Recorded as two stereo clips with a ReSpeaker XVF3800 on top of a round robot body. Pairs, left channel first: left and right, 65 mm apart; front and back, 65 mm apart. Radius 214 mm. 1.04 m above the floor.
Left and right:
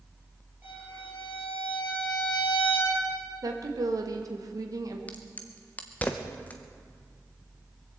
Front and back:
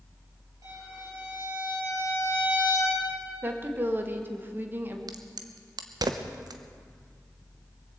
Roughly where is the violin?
Behind right.